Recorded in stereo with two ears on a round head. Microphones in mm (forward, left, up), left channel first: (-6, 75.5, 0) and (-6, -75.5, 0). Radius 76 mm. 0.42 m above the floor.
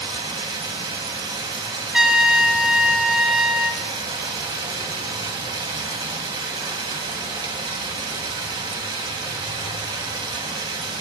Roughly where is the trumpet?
Centre.